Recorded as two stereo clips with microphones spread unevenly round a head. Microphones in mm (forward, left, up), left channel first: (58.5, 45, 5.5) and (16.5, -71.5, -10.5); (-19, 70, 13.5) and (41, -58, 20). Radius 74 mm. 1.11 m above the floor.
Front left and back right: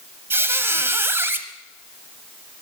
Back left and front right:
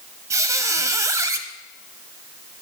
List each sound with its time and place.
0.3 s a squeak: 50° right, 1.0 m